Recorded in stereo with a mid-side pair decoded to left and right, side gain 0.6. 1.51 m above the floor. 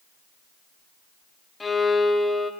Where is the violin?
20° left, 0.5 m.